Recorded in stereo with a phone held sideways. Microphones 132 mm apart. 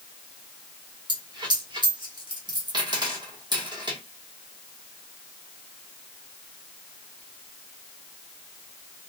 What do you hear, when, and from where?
1.1 s a dropped coin: 35° right (ahead or behind), 1.3 m